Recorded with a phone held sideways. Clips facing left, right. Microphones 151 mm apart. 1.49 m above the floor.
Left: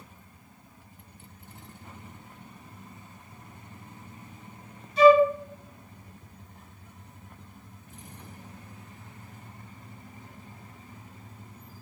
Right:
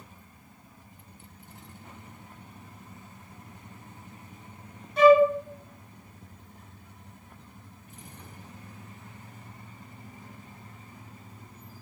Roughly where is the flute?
Right.